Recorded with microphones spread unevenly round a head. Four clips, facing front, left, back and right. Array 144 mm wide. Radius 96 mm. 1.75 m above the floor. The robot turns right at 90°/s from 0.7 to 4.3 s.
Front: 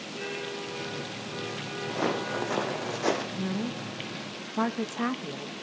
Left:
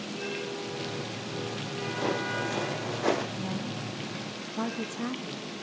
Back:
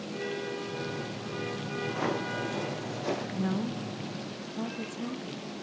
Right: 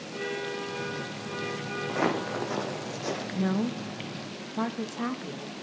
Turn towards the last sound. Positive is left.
turn(degrees=-15)